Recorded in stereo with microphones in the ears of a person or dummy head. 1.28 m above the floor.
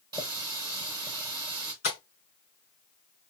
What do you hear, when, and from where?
0.1 s a running tap: 20° right (ahead or behind), 1.0 m
1.8 s tapping: 30° left (ahead or behind), 3.5 m